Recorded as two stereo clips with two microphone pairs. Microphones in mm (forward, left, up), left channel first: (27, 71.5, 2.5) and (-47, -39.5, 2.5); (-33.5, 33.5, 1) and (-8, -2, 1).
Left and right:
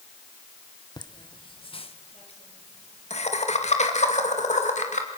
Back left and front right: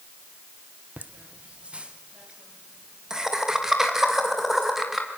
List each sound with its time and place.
1.0 s laughter: straight ahead, 1.2 m; by 5.1 s 30° left, 3 m